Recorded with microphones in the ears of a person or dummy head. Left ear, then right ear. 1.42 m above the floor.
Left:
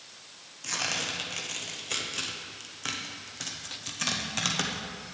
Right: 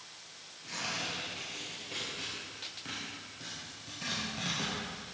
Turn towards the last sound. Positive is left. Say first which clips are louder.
# left 6 dB
turn(degrees=55)  # may be behind; listen again after turning